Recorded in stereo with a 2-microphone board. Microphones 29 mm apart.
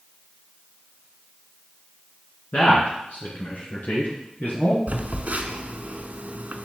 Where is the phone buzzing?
55° right (ahead or behind), 0.7 m.